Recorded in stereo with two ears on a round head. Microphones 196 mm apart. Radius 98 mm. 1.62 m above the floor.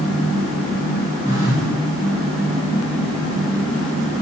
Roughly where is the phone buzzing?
Centre.